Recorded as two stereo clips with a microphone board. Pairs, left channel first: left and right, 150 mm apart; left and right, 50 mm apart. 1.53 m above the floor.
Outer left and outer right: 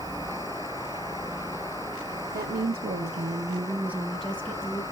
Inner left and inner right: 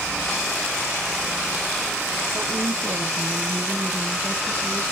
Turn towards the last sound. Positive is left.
turn(degrees=20)  # may be behind; listen again after turning